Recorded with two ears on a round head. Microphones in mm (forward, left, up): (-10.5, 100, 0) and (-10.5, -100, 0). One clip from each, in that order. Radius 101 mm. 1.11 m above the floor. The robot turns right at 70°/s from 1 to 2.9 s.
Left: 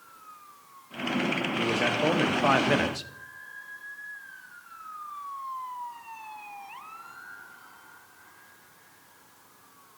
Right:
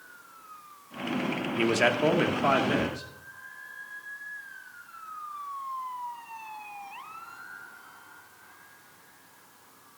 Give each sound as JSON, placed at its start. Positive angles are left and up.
{"t": 1.6, "sound": "a man speaking", "azimuth_deg": -45, "distance_m": 0.9}